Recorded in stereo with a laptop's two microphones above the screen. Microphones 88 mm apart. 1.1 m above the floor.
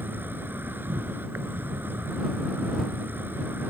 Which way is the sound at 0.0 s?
25° right (ahead or behind).